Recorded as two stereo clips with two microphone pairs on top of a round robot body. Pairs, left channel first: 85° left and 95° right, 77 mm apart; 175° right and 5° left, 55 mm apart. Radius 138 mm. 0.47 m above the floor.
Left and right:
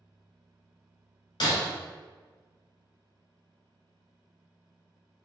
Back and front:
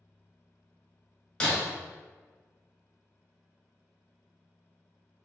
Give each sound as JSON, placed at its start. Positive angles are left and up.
{"t": 1.4, "sound": "breaking glass", "azimuth_deg": 105, "distance_m": 0.8}